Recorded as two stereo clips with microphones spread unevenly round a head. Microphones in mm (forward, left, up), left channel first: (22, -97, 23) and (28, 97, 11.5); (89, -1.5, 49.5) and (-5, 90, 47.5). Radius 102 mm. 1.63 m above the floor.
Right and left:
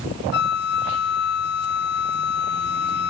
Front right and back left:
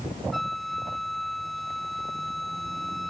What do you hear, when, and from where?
0.3 s a flute: 135° right